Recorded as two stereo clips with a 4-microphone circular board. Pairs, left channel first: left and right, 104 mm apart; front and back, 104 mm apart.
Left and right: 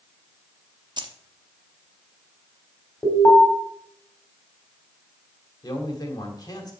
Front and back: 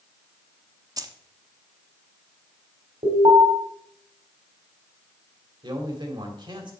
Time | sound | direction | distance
1.0 | keys jangling | 130° right | 0.8 m
3.0 | an alarm | 165° left | 3.5 m
5.6 | a man speaking | 140° left | 1.8 m